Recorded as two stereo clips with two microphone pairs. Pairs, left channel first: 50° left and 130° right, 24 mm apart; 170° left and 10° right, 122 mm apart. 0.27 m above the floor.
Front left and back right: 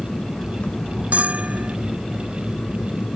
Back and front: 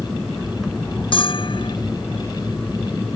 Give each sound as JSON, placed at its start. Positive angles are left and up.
{"t": 0.0, "sound": "an aircraft", "azimuth_deg": 75}
{"t": 1.1, "sound": "a bell", "azimuth_deg": -145}